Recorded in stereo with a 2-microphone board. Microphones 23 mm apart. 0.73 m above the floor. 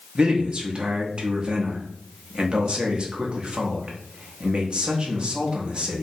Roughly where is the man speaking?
Right.